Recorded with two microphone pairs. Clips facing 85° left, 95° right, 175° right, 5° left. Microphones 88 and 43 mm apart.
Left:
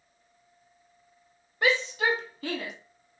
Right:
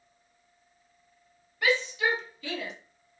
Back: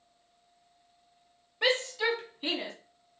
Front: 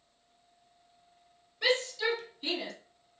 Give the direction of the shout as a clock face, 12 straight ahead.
7 o'clock.